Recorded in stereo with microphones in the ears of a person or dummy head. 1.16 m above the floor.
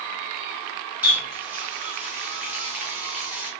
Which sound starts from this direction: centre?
A running tap, at 1.0 s.